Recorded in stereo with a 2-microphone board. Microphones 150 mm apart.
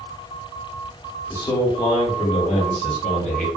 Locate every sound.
1.3 s a man speaking: 20° left (ahead or behind), 1.1 m; by 3.5 s 60° left (ahead or behind), 1.7 m